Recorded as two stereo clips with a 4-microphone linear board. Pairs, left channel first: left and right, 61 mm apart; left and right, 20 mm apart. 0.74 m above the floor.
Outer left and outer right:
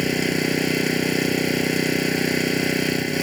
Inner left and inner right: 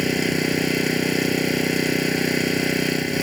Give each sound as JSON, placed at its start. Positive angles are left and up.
{"t": 0.0, "sound": "an engine running", "side_deg": 0}